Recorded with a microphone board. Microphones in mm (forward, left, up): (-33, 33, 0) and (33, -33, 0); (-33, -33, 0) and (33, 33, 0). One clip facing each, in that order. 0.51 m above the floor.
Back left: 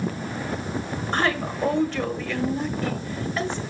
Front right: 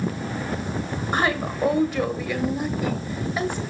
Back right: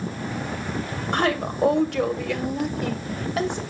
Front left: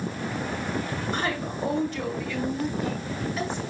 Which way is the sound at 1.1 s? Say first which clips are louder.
Front right 1 dB, back right 9 dB; 125° right.